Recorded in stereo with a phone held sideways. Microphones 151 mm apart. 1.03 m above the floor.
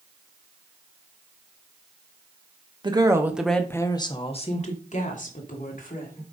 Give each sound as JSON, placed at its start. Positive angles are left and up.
{"t": 2.8, "sound": "a woman speaking", "side_deg": -30, "distance_m": 1.4}